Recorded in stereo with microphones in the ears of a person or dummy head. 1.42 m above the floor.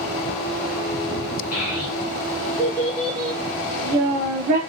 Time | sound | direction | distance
1.5 | a child speaking | 45° left (ahead or behind) | 1.2 m